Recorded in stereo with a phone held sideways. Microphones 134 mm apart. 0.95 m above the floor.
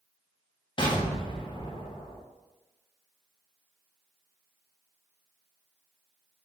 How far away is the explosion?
About 0.6 m.